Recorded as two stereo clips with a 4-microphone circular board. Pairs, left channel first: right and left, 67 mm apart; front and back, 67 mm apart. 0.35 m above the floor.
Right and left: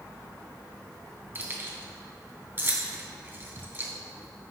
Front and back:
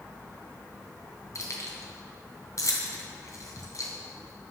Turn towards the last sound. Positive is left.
turn(degrees=35)